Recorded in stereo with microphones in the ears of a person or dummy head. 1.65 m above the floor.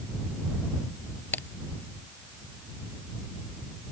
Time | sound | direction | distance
1.3 | a crack | 10° left (ahead or behind) | ?